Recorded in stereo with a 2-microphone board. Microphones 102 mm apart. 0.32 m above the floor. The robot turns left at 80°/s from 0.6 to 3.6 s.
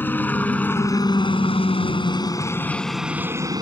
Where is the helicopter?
20° left (ahead or behind); by 3.6 s 40° right (ahead or behind).